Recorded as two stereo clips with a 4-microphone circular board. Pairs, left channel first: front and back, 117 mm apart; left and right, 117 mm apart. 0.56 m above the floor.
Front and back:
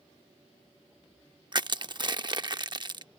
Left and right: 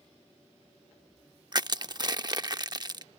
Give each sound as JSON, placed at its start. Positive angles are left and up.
{"t": 1.5, "sound": "crushing", "azimuth_deg": -135}